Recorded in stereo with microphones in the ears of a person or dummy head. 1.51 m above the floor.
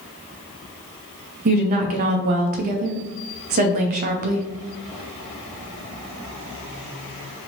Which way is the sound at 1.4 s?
45° right (ahead or behind).